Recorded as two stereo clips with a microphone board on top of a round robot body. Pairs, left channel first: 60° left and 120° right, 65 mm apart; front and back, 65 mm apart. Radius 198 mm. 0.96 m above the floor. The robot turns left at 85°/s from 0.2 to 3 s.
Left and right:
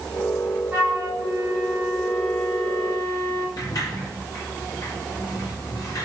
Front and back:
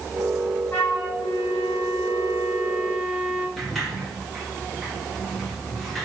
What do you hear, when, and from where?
0.7 s a flute: 70° right, 5.5 m; by 3.5 s 95° left, 5.5 m
3.6 s a sliding door: 90° left, 2.5 m